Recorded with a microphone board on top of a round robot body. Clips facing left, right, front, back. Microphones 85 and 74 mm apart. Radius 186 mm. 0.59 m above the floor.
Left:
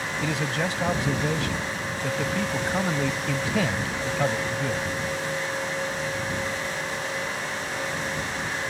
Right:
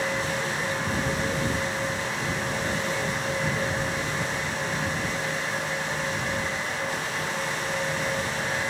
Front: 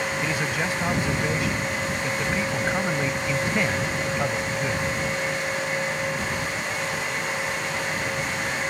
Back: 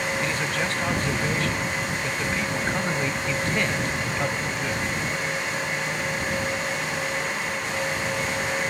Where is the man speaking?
80° left.